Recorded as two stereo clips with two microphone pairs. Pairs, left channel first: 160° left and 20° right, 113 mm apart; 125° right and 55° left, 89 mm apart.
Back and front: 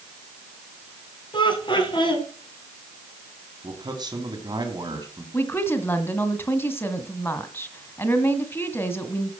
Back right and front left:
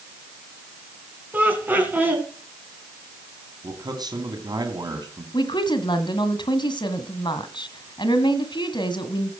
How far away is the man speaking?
About 2.5 m.